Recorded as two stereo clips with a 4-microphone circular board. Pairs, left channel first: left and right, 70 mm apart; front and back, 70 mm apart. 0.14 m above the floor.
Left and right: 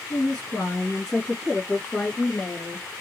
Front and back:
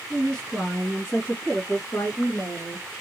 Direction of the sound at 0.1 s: 50° left.